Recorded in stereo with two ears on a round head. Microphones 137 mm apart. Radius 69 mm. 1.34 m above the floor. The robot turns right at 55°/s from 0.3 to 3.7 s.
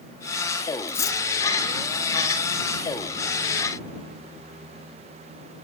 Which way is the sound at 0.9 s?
10° left (ahead or behind).